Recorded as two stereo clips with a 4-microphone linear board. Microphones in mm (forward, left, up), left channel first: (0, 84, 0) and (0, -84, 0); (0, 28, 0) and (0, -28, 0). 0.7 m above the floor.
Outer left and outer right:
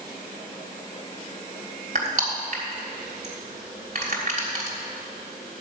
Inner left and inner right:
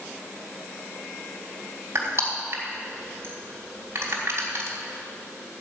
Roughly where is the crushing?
Right.